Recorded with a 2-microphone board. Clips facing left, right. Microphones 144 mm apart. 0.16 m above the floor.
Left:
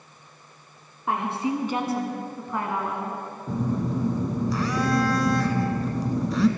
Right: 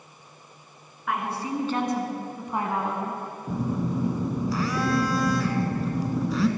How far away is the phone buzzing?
About 0.9 m.